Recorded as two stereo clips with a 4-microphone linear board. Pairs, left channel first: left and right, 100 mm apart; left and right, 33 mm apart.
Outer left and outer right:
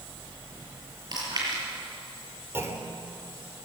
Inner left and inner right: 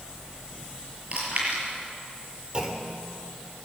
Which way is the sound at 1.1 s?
40° right (ahead or behind).